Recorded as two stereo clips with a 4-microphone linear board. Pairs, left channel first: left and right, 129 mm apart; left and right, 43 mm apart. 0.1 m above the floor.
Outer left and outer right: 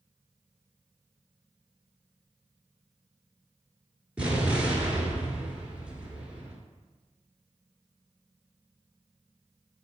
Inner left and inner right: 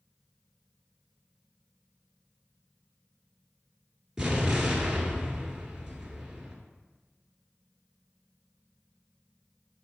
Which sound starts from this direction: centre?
An explosion, at 4.2 s.